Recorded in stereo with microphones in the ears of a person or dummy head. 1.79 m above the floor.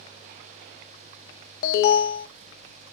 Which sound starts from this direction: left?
An alarm, at 1.6 s.